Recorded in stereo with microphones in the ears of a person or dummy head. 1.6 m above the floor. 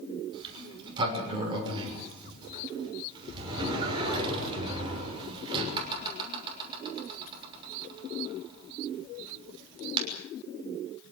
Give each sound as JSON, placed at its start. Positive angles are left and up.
{"t": 0.3, "sound": "a sliding door", "side_deg": -25, "distance_m": 6.0}